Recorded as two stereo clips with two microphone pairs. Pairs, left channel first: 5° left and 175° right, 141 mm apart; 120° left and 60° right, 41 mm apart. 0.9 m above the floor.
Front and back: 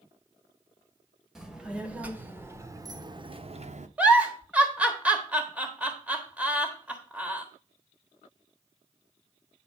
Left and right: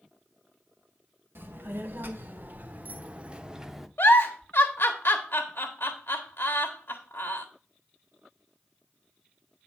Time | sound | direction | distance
1.4 | a child speaking | 85° right | 1.8 m
4.0 | a giggle | 105° left | 1.4 m